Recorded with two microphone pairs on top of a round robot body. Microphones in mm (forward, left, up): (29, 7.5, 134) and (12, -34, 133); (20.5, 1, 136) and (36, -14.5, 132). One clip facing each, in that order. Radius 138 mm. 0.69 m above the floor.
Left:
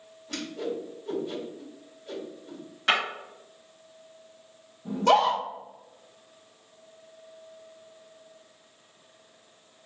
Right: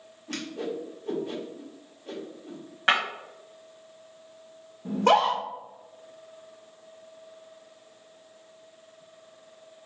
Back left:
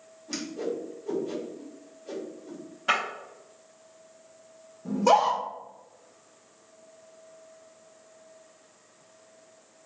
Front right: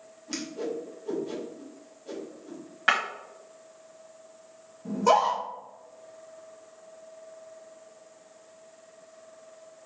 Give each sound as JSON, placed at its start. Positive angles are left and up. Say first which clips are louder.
{"t": 0.3, "sound": "a whoosh", "louder": "even, back left 1 dB", "azimuth_deg": -120, "distance_m": 1.5}
{"t": 2.9, "sound": "breaking glass", "louder": "right 2 dB, front right 2 dB", "azimuth_deg": -60, "distance_m": 1.3}
{"t": 4.8, "sound": "a scream", "louder": "even, back left 1 dB", "azimuth_deg": -125, "distance_m": 1.6}